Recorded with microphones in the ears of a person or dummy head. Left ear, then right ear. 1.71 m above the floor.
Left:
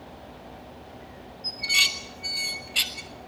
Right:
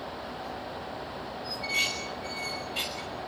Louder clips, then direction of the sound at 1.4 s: Left 7 dB; 25° left (ahead or behind).